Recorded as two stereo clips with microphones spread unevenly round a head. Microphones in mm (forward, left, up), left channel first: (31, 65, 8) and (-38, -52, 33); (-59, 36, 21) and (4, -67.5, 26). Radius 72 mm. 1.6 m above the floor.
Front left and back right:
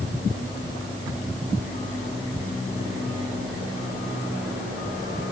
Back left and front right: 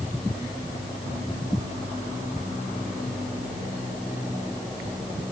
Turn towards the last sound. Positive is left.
No sound to turn to.